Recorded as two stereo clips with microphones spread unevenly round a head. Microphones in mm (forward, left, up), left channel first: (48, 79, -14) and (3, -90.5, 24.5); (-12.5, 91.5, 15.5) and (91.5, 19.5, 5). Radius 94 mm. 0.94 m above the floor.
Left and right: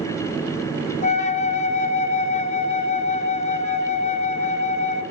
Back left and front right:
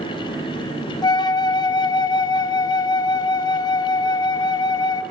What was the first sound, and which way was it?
A flute, 90° left.